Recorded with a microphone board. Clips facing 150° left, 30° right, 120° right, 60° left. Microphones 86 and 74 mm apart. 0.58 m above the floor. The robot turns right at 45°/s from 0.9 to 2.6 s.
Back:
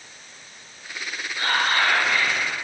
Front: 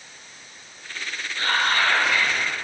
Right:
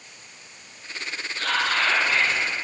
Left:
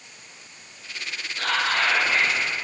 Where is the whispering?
75° left, 0.8 m; by 2.4 s 120° left, 0.8 m.